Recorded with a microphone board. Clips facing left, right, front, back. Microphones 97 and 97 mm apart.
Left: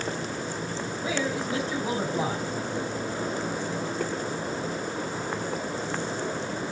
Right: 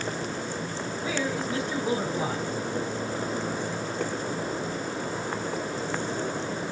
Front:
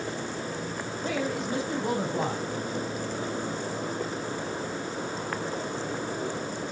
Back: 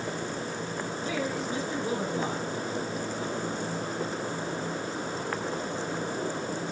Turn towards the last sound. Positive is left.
turn(degrees=15)